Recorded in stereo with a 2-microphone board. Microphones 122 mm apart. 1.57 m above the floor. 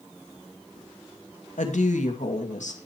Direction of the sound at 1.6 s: 75° left (ahead or behind).